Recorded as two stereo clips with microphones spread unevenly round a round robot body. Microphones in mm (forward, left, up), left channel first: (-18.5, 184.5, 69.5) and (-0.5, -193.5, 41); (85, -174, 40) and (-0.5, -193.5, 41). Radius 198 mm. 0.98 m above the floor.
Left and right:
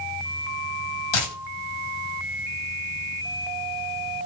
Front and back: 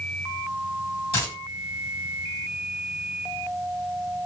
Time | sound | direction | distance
1.1 | a dropped coin | 55° left | 2 m